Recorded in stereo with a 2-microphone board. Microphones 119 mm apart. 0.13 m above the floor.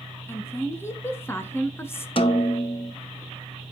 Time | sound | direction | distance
0.3 | a woman speaking | 20° left (ahead or behind) | 1.1 m
2.2 | a snare drum | 50° left (ahead or behind) | 0.6 m